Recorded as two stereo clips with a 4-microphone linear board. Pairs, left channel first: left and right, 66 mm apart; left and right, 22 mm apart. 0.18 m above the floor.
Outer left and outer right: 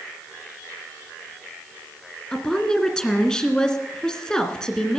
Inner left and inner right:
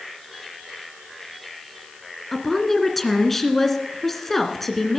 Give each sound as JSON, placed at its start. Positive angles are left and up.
{"t": 2.3, "sound": "a woman speaking", "side_deg": 10, "distance_m": 2.0}